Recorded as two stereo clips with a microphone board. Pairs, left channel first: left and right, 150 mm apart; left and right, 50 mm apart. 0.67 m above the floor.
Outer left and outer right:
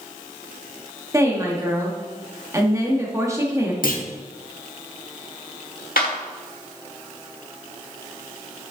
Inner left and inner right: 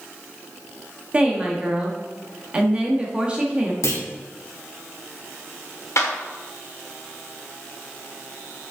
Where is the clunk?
70° left (ahead or behind), 1.0 m.